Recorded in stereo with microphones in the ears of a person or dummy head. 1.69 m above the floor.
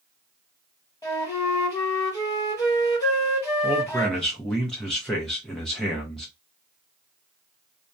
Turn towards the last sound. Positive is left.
turn(degrees=5)  # may be behind; listen again after turning